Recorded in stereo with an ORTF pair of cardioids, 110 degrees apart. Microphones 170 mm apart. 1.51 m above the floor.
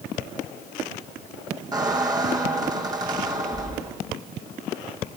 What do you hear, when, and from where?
1.7 s a squeak: 25° right, 5 m